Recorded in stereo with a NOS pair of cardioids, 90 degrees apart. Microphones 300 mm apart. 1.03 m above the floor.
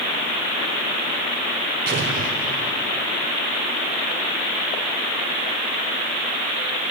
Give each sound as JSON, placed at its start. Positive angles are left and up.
{"t": 1.9, "sound": "an explosion", "azimuth_deg": -40, "distance_m": 3.5}